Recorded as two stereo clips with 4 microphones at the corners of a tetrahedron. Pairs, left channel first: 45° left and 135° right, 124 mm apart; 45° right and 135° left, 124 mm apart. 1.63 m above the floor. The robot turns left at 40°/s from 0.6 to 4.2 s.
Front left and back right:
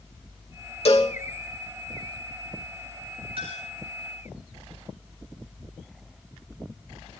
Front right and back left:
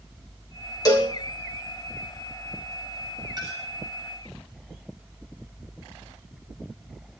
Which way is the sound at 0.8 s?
15° left.